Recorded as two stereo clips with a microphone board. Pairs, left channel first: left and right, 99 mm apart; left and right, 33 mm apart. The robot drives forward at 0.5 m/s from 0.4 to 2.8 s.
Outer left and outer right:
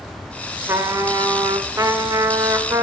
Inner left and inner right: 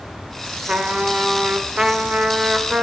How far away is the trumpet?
About 0.8 m.